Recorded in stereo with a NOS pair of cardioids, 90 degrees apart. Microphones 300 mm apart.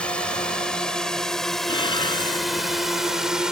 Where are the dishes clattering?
15° left.